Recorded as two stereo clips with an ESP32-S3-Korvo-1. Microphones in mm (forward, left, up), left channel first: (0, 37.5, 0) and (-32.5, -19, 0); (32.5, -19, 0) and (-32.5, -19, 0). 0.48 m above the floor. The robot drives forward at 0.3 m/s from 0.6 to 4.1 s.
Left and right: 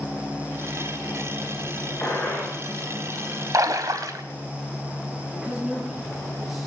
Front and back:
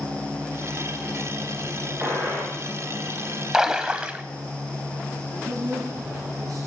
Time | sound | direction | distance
2.0 | a gunshot | 115° left | 8.5 m
3.5 | a splash | 100° right | 1.0 m
5.3 | a man speaking | 155° left | 9 m